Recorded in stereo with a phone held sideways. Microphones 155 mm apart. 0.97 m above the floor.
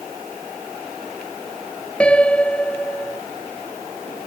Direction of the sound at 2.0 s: 5° left (ahead or behind).